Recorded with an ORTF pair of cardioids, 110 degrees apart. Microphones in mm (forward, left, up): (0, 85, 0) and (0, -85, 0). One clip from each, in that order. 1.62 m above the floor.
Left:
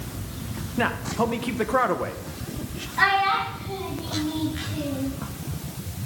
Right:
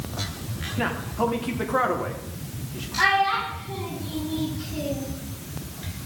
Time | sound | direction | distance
0.8 | a man speaking | 25° left | 1.5 m
3.0 | a child speaking | 40° left | 7 m